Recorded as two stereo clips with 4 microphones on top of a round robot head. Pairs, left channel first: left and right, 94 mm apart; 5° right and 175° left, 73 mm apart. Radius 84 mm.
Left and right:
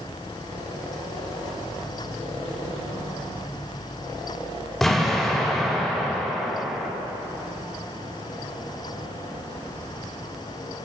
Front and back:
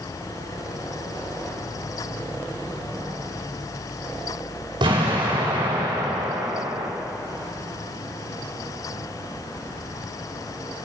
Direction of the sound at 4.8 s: Straight behind.